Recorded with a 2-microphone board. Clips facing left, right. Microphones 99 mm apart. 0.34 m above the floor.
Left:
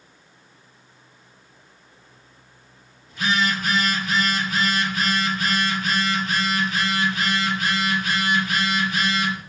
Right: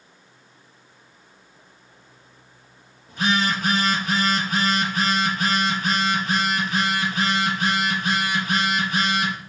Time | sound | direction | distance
3.1 | a phone buzzing | 45° right (ahead or behind) | 5 m